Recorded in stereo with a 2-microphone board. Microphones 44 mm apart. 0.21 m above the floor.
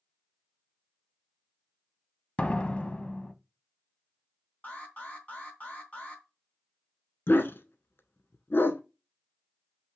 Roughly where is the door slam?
Left.